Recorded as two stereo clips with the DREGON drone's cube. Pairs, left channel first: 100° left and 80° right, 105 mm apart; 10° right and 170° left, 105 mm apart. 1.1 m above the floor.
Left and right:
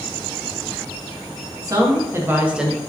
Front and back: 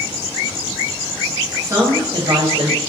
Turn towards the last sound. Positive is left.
turn(degrees=-170)